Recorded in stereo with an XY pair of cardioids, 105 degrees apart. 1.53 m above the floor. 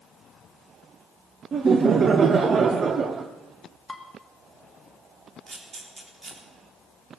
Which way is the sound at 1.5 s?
45° right.